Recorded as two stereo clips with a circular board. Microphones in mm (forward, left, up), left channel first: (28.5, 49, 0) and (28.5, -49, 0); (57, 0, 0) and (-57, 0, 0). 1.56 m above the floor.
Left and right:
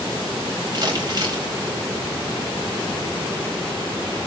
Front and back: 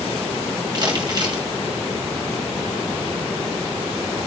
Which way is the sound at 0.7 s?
135° right.